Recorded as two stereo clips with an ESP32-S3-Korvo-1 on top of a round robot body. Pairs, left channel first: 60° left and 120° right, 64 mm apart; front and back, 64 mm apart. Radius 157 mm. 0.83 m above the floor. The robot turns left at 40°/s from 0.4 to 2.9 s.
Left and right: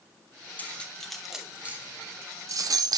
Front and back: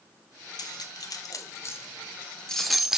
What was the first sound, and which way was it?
Cutlery clinking, 5° right.